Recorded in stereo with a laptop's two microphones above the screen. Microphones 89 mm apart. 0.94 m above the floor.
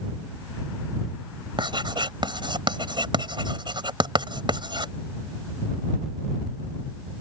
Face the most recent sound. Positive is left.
turn(degrees=-60)  # may be behind; listen again after turning